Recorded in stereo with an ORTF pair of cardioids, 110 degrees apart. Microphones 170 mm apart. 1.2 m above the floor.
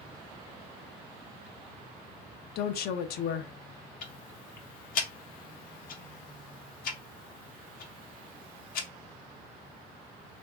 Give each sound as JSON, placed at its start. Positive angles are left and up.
{"t": 2.5, "sound": "a woman speaking", "azimuth_deg": 70, "distance_m": 0.6}
{"t": 4.0, "sound": "ticking", "azimuth_deg": 65, "distance_m": 0.8}